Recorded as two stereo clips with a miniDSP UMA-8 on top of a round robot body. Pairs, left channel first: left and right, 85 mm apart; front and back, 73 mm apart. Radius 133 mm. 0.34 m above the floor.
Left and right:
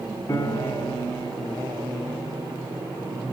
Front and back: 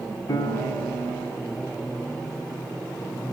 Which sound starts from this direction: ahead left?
A piano, at 0.3 s.